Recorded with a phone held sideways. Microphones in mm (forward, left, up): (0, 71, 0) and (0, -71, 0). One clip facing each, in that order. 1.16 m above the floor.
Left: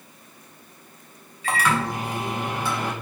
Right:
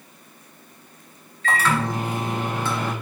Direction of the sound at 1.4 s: 10° left (ahead or behind).